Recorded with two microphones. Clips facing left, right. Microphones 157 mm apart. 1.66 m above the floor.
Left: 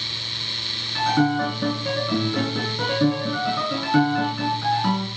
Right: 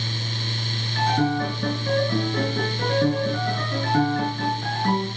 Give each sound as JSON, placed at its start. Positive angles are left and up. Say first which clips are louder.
{"t": 0.9, "sound": "a piano", "louder": "left 2 dB", "side_deg": 80, "distance_m": 7.0}